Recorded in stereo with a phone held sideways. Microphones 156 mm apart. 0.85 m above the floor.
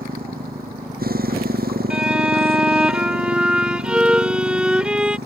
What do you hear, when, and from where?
0.0 s a motorcycle: 70° right (ahead or behind); by 5.3 s 85° right
1.9 s a violin: 5° right (ahead or behind)